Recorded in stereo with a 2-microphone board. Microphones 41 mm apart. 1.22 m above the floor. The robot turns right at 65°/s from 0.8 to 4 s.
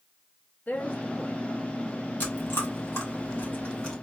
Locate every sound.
0.7 s a woman speaking: 35° left (ahead or behind), 0.8 m; by 2.1 s 40° right (ahead or behind), 0.8 m
2.2 s chewing: 40° left (ahead or behind), 2.5 m; by 3.9 s 25° left (ahead or behind), 2.5 m